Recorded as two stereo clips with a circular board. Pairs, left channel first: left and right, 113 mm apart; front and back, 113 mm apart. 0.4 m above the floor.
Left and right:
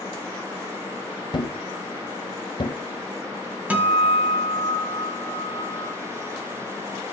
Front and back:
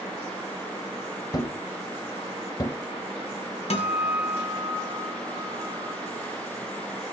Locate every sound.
1.3 s a thud: 50° left, 0.7 m
3.7 s a guitar: 15° right, 1.7 m